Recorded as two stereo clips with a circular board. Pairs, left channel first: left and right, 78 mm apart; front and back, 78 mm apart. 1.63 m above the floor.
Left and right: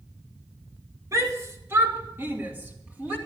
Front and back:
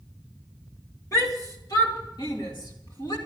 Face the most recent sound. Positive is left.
turn(degrees=-15)